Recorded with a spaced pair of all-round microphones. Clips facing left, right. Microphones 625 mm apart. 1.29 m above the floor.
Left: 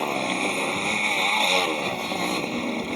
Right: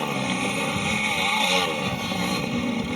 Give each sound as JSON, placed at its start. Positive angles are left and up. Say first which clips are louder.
{"t": 0.0, "sound": "a motorcycle", "louder": "even", "side_deg": -40}